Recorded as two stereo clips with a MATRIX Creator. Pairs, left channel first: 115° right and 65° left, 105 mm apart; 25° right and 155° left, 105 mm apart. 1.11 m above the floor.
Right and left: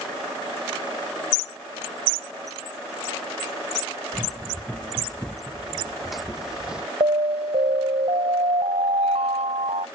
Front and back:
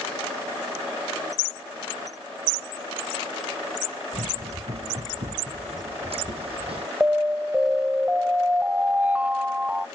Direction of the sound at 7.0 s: 80° left.